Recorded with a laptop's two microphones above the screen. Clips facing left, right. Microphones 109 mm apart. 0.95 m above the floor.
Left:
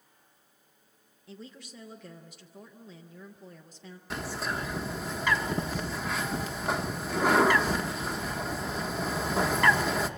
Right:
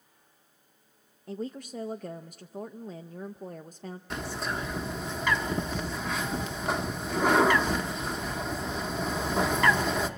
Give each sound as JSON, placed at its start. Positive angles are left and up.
{"t": 1.3, "sound": "a woman speaking", "side_deg": -45, "distance_m": 0.5}
{"t": 4.1, "sound": "a bird", "side_deg": 0, "distance_m": 0.9}